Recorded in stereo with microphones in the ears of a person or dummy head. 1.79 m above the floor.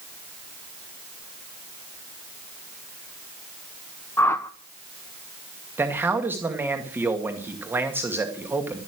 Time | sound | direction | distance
4.2 | a whoosh | 5° left (ahead or behind) | 1.2 m
5.8 | a man speaking | 20° right (ahead or behind) | 2 m